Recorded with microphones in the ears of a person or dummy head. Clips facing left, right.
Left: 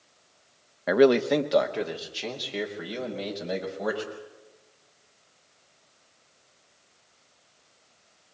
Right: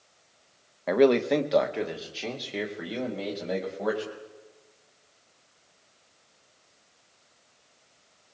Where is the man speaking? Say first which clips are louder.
Left 1 dB; 10° left (ahead or behind), 0.7 m; by 4.1 s 5° right (ahead or behind), 5.5 m.